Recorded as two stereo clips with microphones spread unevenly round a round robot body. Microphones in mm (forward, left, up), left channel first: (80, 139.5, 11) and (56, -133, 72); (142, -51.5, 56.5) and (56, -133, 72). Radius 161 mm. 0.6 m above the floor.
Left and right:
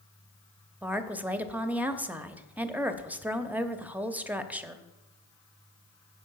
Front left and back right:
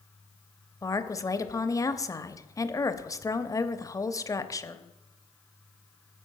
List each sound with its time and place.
0.8 s a woman speaking: straight ahead, 0.9 m